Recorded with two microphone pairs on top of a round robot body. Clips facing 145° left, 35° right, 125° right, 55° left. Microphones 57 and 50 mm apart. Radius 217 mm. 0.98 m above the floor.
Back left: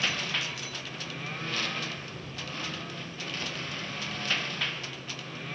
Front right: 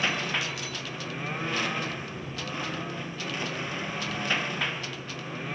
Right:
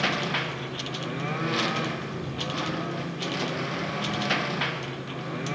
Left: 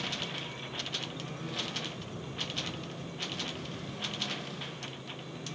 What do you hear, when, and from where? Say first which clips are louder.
0.0 s a lawn mower: front right 3 dB, right 11 dB; 105° right